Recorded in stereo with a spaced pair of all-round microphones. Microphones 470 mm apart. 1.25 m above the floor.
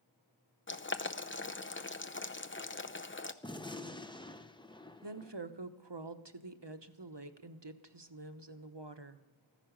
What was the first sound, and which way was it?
Boiling, 25° left (ahead or behind).